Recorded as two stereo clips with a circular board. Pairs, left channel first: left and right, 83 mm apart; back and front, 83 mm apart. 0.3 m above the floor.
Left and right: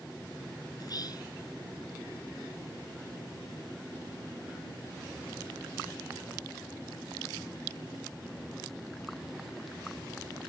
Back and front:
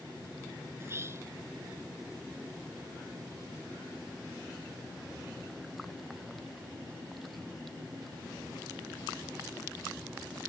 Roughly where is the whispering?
Ahead left.